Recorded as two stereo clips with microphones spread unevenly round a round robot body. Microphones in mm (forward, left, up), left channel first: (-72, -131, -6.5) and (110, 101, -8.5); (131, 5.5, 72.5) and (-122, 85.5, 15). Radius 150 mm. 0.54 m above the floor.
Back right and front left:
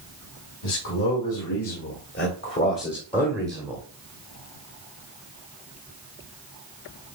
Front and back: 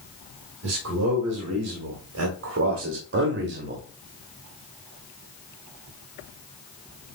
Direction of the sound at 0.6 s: 160° right.